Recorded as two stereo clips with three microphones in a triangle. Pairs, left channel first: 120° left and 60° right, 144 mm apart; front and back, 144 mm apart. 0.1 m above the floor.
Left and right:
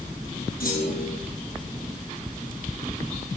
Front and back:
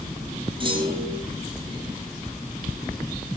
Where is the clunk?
125° left, 9.5 m.